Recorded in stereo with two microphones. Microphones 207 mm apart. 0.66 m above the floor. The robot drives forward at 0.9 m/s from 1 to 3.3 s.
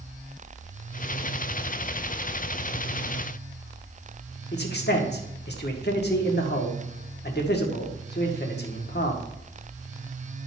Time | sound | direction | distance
4.5 | a man speaking | 55° left (ahead or behind) | 1.7 m